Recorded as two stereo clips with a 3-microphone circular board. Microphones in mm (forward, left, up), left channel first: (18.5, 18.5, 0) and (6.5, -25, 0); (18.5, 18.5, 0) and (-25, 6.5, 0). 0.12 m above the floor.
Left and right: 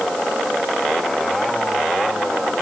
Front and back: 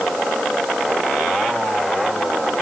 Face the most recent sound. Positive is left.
No sound to turn to.